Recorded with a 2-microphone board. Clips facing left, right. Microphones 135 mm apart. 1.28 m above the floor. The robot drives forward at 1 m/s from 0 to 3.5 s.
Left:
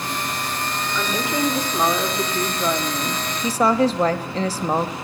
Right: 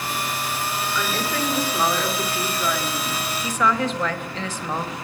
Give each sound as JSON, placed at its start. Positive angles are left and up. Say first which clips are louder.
{"t": 0.9, "sound": "a woman speaking", "louder": "left 4 dB", "side_deg": 15, "distance_m": 4.0}